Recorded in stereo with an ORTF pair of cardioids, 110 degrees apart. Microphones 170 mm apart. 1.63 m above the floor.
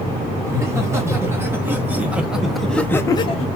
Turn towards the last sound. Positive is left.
turn(degrees=60)